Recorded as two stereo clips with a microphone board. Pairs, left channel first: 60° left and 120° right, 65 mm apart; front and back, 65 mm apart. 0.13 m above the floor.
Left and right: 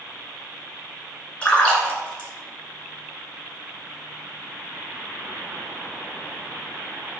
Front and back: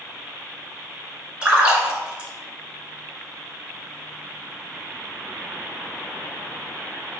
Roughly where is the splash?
Behind left.